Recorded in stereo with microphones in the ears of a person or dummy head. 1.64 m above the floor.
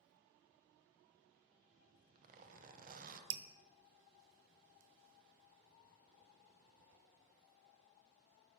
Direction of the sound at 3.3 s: 30° right (ahead or behind).